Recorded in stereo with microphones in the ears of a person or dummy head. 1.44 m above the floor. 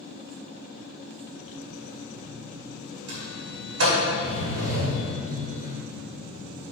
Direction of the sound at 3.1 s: 75° right (ahead or behind).